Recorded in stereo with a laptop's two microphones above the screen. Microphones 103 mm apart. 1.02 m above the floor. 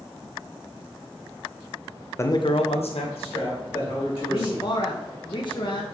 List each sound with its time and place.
2.2 s a man speaking: 25° left (ahead or behind), 0.5 m; by 4.7 s 55° left (ahead or behind), 2.5 m
4.3 s a man speaking: 50° left (ahead or behind), 0.5 m